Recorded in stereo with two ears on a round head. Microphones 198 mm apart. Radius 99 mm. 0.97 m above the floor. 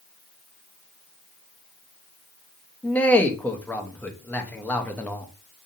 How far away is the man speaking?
About 0.7 m.